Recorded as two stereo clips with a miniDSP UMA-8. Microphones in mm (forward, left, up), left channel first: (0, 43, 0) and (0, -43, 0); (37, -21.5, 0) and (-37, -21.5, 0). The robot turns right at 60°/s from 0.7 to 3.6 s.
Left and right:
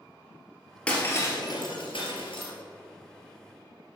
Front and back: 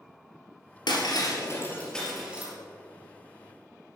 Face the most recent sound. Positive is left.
turn(degrees=180)